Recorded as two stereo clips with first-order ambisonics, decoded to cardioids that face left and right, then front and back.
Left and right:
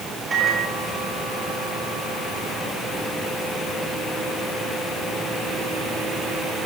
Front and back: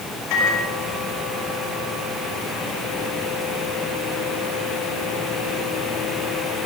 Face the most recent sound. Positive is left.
turn(degrees=-20)